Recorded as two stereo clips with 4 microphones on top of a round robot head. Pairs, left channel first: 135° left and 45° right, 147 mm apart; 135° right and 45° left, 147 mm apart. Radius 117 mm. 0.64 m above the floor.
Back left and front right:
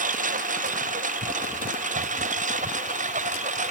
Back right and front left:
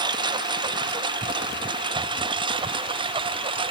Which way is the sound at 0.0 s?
15° right.